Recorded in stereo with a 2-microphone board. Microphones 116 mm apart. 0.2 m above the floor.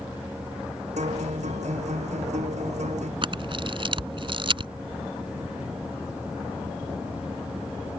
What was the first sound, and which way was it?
A guitar, 85° right.